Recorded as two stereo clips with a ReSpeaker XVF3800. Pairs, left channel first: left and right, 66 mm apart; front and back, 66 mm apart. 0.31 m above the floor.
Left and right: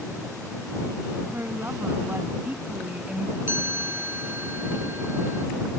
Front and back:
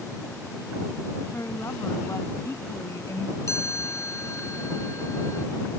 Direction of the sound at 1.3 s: 40° right.